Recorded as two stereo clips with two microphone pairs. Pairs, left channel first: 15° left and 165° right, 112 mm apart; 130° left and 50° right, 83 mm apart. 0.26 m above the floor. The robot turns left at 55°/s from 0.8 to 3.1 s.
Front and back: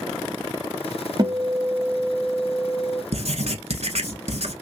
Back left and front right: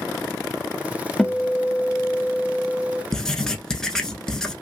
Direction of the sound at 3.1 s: 150° right.